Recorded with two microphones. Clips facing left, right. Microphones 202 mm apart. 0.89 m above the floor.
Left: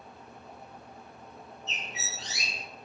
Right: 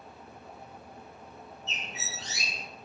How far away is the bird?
About 3.5 m.